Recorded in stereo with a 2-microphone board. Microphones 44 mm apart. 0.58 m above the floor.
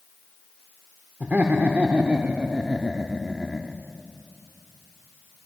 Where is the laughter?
45° right (ahead or behind), 2 m; by 3.8 s 5° left (ahead or behind), 1.4 m.